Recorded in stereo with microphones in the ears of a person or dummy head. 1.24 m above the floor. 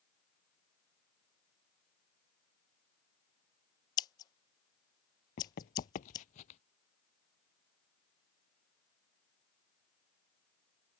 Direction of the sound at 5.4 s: 35° left (ahead or behind).